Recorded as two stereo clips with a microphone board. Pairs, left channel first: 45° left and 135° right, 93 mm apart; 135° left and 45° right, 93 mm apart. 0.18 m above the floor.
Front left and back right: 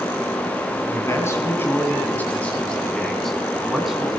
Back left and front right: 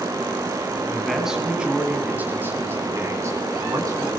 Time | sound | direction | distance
0.9 | a man speaking | 45° left | 1.9 m